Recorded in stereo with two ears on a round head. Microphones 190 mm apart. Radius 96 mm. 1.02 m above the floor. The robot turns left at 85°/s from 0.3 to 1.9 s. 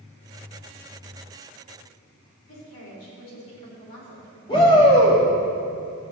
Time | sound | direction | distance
2.5 | a woman speaking | 75° left (ahead or behind) | 4 m
4.5 | a shout | 25° left (ahead or behind) | 1.6 m